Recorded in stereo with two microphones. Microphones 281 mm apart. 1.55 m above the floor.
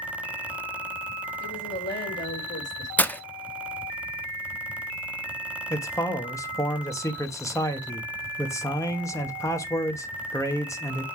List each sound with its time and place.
1.4 s a woman speaking: 40° left (ahead or behind), 4.5 m
3.0 s breaking glass: 5° left (ahead or behind), 0.6 m
5.7 s a man speaking: 10° left (ahead or behind), 1.2 m